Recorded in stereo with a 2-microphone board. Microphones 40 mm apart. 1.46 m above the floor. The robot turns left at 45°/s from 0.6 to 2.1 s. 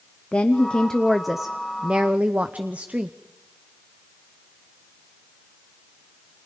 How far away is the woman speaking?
About 0.7 m.